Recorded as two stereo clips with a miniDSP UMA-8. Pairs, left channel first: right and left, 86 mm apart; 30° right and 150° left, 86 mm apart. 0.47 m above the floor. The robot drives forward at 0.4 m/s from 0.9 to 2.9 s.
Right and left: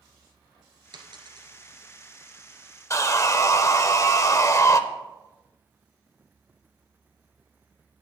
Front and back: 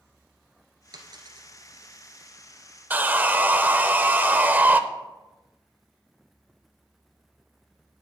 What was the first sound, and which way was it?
A dropped coin, 115° left.